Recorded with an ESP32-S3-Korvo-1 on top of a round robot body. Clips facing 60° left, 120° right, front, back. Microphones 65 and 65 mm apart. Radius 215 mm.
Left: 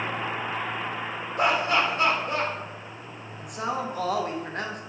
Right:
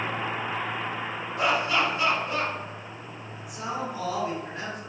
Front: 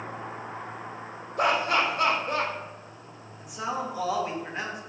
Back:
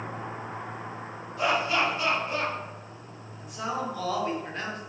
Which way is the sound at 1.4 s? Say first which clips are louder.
Left 2 dB, front 2 dB; 25° left.